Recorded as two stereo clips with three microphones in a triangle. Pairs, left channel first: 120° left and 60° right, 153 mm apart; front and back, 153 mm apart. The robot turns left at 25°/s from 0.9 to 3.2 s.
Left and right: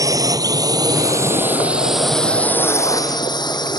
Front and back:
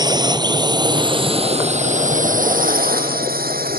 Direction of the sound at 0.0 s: 125° right.